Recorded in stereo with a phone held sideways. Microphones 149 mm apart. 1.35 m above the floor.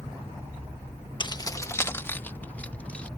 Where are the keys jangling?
35° left (ahead or behind); by 3.1 s 10° left (ahead or behind).